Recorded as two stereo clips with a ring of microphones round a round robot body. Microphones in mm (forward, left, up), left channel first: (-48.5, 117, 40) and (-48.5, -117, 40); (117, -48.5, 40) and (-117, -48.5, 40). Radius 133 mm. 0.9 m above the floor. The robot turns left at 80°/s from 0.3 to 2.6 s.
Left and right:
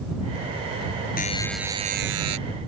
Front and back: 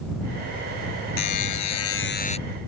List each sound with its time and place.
1.2 s a buzzer: 30° left; by 2.4 s 65° right